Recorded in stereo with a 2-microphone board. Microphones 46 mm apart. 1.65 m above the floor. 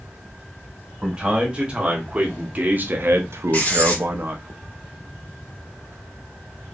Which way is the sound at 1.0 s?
20° right (ahead or behind).